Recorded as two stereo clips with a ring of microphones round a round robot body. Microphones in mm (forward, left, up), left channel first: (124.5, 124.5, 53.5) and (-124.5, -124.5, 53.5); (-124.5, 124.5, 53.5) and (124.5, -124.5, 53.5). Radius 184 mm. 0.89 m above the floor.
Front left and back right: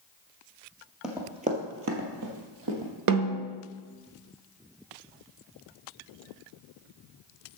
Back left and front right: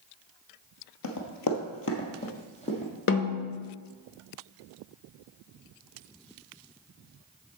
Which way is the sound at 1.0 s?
135° left.